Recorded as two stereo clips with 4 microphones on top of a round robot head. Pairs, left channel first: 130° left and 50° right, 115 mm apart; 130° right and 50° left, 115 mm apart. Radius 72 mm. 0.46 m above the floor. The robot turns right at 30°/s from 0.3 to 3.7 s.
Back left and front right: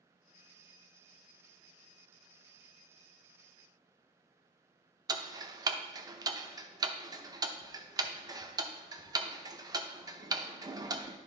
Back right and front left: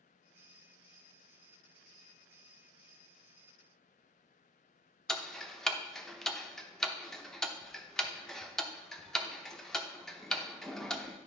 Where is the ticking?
50° right, 0.8 m.